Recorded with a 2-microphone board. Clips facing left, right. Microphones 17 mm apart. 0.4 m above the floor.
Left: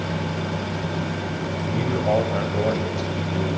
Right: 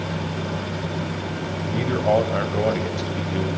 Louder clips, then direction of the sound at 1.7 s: Right 2 dB; 30° right (ahead or behind).